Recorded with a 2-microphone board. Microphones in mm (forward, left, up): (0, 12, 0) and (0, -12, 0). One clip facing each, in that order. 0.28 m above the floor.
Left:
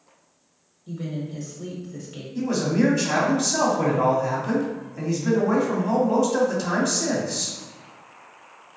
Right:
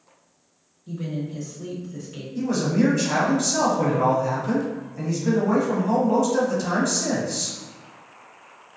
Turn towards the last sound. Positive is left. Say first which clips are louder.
# even
turn(degrees=15)  # may be behind; listen again after turning